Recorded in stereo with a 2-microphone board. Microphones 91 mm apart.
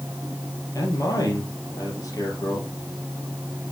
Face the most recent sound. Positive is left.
turn(degrees=45)  # may be behind; listen again after turning